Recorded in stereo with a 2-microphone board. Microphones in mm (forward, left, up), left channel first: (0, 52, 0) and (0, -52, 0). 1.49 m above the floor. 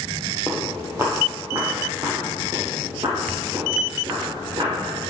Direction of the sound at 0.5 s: 15° right (ahead or behind).